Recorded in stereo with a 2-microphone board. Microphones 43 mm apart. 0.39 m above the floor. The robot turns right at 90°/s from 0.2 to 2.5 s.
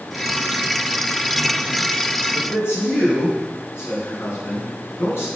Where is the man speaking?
75° left (ahead or behind), 4.5 m; by 5.3 s 70° left (ahead or behind), 4.5 m.